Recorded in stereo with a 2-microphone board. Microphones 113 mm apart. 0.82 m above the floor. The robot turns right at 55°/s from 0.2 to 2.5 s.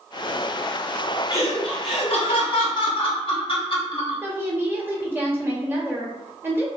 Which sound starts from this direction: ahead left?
Laughter, at 1.3 s.